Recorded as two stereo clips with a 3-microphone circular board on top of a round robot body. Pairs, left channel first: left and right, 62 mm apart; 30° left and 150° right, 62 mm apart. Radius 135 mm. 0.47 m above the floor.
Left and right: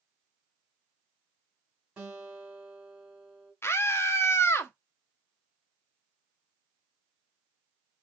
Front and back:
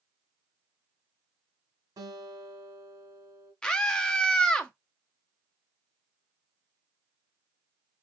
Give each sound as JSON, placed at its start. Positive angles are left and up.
{"t": 2.0, "sound": "a guitar", "azimuth_deg": -170, "distance_m": 3.0}
{"t": 3.6, "sound": "a scream", "azimuth_deg": 100, "distance_m": 1.1}